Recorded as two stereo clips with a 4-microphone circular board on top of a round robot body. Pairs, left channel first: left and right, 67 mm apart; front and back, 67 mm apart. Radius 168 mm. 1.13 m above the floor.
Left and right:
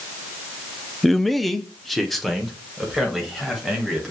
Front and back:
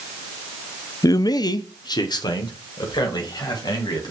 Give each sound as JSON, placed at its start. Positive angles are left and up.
{"t": 1.0, "sound": "a man speaking", "azimuth_deg": 0, "distance_m": 0.5}